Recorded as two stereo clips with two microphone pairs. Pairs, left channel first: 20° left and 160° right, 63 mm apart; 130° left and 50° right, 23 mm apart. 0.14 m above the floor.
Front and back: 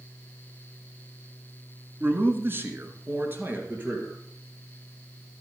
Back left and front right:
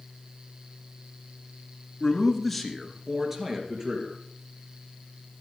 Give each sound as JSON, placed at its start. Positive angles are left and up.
{"t": 2.0, "sound": "a man speaking", "azimuth_deg": -170, "distance_m": 1.5}